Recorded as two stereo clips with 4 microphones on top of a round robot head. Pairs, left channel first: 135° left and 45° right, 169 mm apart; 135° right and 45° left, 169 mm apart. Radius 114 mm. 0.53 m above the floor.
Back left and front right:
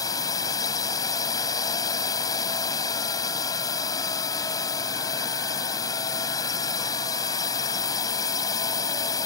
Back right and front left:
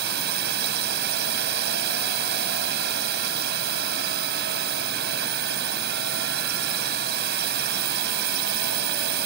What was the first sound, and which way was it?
A drone, 65° left.